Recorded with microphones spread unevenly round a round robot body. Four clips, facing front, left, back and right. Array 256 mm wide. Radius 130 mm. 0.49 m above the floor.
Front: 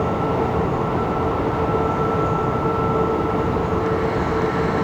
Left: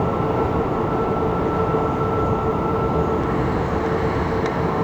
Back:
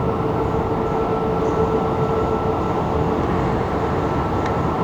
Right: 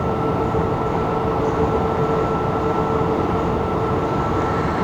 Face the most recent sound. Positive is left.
No sound to turn to.